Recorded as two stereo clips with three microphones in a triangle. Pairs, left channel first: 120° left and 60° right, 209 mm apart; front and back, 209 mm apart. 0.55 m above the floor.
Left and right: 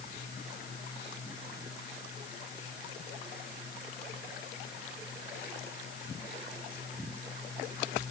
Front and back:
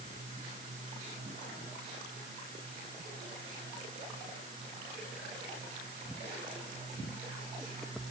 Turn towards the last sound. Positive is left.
No sound to turn to.